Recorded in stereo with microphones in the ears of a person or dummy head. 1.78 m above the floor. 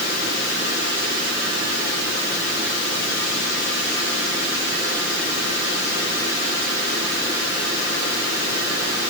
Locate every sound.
Only background noise.